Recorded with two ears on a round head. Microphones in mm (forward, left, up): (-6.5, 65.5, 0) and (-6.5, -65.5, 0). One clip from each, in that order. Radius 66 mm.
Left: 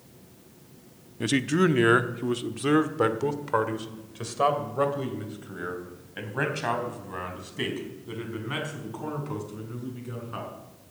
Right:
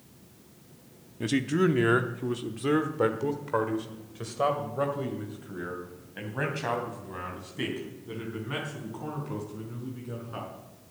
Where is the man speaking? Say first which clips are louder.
Left 2 dB; 20° left (ahead or behind), 0.6 m.